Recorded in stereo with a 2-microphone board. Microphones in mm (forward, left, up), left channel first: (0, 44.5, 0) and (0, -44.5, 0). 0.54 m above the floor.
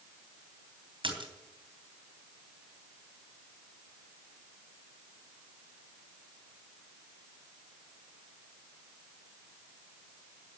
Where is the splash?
70° right (ahead or behind), 3 m.